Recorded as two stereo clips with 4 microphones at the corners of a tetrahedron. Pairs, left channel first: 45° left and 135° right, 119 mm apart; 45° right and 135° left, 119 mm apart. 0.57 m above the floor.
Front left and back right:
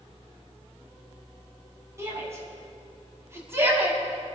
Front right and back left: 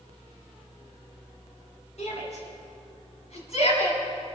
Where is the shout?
70° right, 5.5 m; by 4.3 s 65° right, 4 m.